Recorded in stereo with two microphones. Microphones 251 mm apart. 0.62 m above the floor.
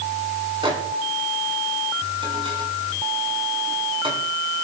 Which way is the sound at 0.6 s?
20° right (ahead or behind).